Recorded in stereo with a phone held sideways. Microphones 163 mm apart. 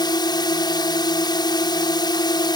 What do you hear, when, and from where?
0.0 s a drone: 25° left (ahead or behind)